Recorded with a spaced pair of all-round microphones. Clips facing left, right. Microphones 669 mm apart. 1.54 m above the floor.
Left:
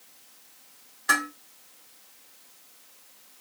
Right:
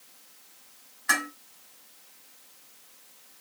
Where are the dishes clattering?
60° left (ahead or behind), 2.5 m.